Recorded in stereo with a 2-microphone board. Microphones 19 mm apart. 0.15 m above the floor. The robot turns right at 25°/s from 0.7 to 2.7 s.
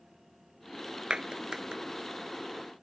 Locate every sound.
1.1 s a clap: 55° right (ahead or behind); by 1.8 s 45° right (ahead or behind)